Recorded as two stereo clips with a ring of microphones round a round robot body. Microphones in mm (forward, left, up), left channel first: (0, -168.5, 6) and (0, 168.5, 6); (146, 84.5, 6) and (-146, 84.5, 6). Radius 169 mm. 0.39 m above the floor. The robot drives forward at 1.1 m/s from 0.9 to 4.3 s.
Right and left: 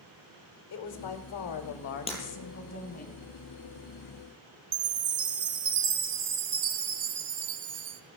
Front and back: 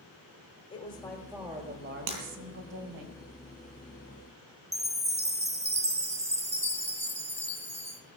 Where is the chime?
110° left, 1.6 m.